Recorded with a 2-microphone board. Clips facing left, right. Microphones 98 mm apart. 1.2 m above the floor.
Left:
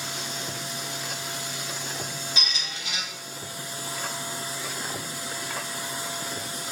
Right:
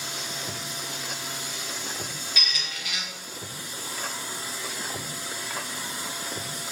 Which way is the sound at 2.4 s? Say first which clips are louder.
Even; 25° left (ahead or behind).